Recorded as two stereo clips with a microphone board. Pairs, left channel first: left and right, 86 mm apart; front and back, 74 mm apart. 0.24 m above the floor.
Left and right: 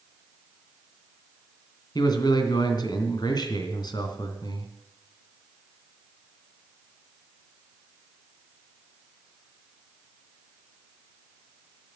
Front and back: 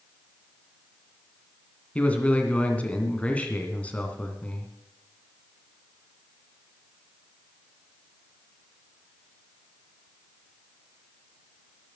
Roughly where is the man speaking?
Left.